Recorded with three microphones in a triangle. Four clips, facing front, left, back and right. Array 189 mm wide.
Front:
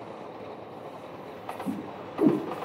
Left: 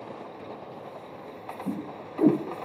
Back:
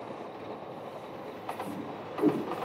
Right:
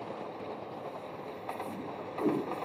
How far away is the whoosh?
About 1.9 m.